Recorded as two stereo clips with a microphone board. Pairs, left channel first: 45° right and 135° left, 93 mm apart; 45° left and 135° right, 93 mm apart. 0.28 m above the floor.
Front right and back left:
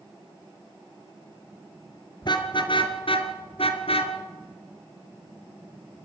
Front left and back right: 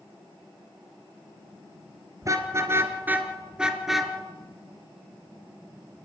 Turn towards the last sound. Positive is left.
turn(degrees=-45)